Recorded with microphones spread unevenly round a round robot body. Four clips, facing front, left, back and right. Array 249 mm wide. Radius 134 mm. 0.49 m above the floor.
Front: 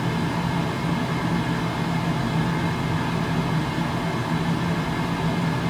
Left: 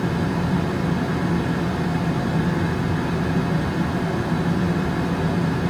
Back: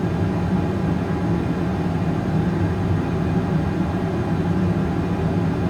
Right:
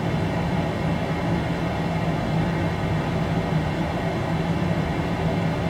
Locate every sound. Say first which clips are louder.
0.0 s running water: left 2 dB, back 2 dB; 155° left, 1.4 m